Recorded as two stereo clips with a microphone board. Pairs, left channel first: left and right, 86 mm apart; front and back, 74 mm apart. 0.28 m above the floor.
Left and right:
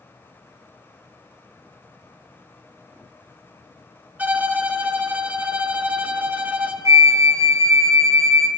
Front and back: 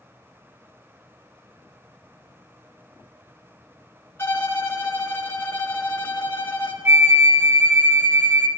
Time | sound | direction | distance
4.2 | a violin | 30° right | 0.6 m
6.8 | a flute | 130° right | 0.5 m